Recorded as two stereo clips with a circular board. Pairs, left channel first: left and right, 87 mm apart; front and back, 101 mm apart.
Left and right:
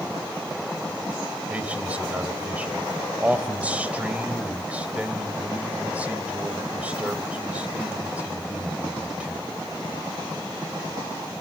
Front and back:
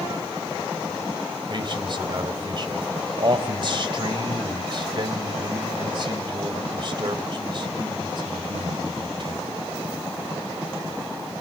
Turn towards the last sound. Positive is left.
turn(degrees=-160)